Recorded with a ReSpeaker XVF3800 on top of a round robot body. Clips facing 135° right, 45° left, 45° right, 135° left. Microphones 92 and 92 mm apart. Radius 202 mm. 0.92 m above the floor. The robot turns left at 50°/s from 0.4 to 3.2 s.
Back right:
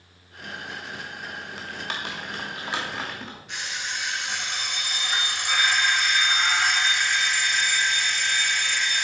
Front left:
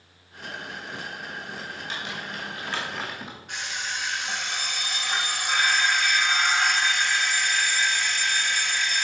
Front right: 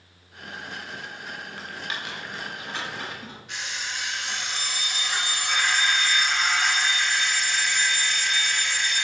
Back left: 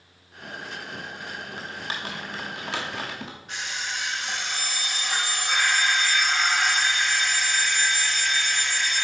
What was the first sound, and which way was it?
Typing on a keyboard, 150° right.